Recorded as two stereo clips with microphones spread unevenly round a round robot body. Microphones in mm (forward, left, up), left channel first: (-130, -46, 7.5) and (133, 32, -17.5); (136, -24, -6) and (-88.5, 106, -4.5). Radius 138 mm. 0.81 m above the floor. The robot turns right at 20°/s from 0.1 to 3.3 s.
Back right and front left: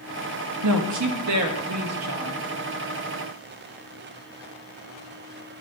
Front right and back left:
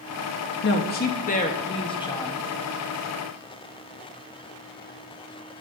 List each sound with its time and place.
0.6 s a woman speaking: 15° left, 0.6 m; by 2.4 s 50° left, 0.6 m